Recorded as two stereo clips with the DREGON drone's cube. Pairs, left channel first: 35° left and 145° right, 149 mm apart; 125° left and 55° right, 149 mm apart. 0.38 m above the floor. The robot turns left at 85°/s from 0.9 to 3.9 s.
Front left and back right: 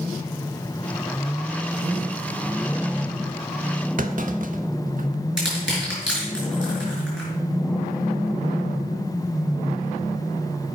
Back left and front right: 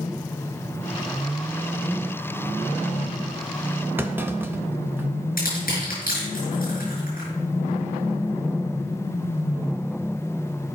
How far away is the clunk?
About 0.7 m.